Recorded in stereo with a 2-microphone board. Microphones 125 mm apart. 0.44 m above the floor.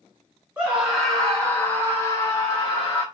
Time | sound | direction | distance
0.6 | a scream | 10° right (ahead or behind) | 1.1 m